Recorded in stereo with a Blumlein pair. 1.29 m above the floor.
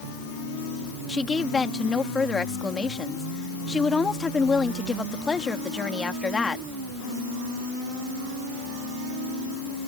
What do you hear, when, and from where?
1.1 s a woman speaking: 15° left